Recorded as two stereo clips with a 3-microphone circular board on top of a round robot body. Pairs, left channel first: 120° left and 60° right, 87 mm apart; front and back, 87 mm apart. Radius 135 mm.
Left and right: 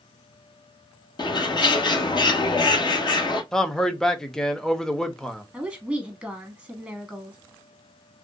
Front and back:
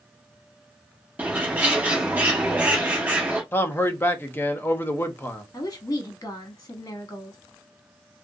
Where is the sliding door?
I don't hear a sliding door.